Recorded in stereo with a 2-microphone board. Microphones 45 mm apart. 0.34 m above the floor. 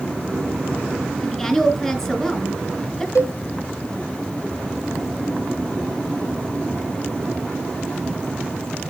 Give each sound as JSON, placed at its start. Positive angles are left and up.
{"t": 1.2, "sound": "a woman speaking", "side_deg": 15, "distance_m": 2.5}
{"t": 3.1, "sound": "a cowbell", "side_deg": 85, "distance_m": 1.3}